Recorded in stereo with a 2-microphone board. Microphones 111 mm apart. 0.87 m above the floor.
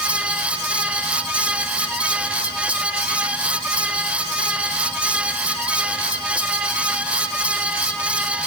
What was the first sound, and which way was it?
Only background noise.